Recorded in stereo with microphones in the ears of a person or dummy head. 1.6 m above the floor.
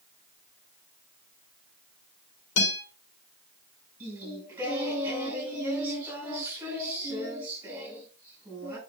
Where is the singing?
15° right (ahead or behind), 6.5 m.